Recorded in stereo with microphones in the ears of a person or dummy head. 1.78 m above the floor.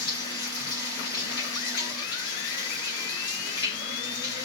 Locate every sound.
0.0 s running water: 25° left (ahead or behind), 2.5 m